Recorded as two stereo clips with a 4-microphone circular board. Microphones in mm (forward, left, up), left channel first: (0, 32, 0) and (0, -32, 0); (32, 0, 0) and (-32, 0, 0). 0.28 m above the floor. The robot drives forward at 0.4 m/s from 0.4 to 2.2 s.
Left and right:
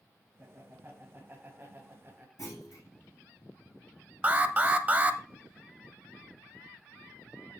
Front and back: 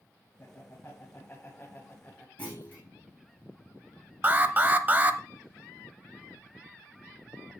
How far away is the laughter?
About 2 m.